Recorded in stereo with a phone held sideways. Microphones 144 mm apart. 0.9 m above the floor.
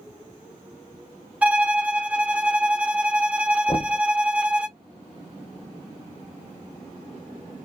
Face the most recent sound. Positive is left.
turn(degrees=35)  # may be behind; listen again after turning